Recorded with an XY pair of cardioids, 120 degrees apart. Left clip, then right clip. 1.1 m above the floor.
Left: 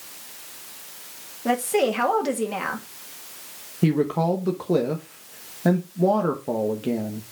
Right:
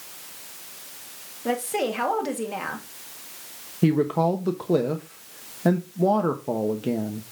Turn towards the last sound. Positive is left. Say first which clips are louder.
# right 1 dB
turn(degrees=-5)